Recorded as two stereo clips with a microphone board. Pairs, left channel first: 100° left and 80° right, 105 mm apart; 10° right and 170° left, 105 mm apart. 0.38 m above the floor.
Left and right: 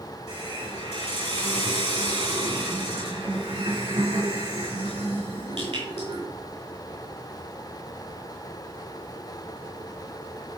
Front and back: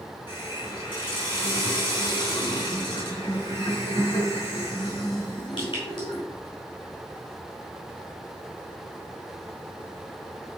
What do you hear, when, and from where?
0.3 s a hiss: 55° right, 5 m